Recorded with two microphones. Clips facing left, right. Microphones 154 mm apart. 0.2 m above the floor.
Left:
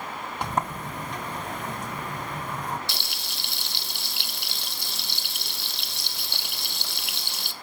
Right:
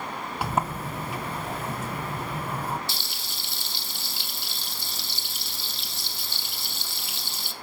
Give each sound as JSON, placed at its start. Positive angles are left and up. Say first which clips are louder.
{"t": 0.4, "sound": "a sliding door", "louder": "right 1 dB", "side_deg": -5, "distance_m": 1.3}
{"t": 2.9, "sound": "frying", "louder": "left 1 dB", "side_deg": 70, "distance_m": 1.4}